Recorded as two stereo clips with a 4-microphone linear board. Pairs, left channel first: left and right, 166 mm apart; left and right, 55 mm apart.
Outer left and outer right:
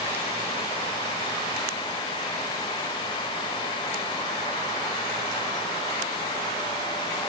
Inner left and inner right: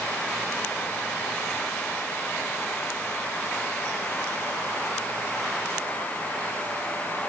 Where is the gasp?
No gasp in this recording.